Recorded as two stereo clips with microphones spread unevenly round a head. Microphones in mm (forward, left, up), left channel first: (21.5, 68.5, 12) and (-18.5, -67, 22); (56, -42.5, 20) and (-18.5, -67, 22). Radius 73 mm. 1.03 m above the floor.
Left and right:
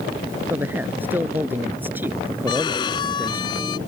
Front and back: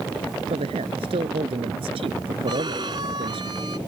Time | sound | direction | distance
0.5 | a man speaking | 175° left | ?
2.5 | a violin | 135° left | ?